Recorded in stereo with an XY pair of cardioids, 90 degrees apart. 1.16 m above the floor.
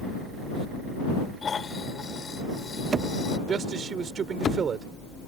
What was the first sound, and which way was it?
Snoring, 45° left.